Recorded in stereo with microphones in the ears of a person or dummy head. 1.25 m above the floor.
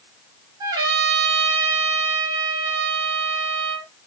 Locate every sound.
0.6 s a trumpet: 25° right (ahead or behind), 0.9 m